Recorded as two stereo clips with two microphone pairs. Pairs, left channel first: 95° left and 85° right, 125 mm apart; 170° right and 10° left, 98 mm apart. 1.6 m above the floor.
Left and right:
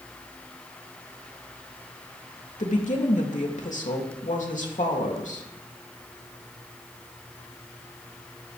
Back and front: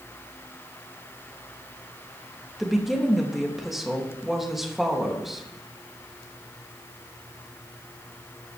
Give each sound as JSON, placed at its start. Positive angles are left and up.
{"t": 2.6, "sound": "a woman speaking", "azimuth_deg": 100, "distance_m": 3.0}